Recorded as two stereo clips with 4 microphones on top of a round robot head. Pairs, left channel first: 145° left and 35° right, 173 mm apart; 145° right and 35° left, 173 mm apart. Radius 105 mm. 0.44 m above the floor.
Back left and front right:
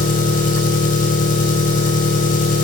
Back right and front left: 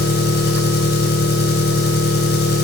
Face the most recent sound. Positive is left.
turn(degrees=-170)